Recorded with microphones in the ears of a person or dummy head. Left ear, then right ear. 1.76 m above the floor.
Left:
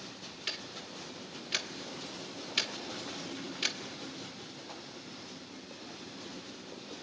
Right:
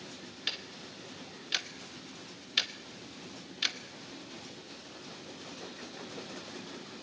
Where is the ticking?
10° right (ahead or behind), 1.0 m.